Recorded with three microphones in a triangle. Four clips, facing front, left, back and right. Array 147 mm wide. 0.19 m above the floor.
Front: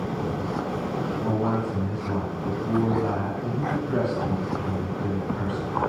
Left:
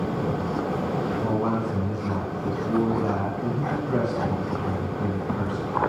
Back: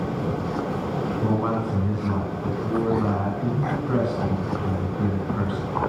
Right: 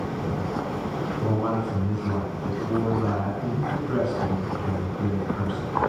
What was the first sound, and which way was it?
A man speaking, 165° left.